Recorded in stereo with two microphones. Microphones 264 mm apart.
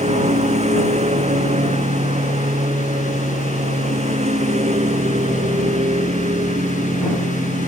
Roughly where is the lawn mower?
Right.